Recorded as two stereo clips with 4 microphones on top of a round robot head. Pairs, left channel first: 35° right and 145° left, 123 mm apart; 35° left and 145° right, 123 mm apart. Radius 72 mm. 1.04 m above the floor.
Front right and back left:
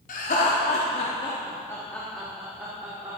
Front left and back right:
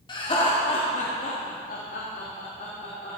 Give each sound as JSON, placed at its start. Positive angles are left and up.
{"t": 0.1, "sound": "laughter", "azimuth_deg": -20, "distance_m": 2.5}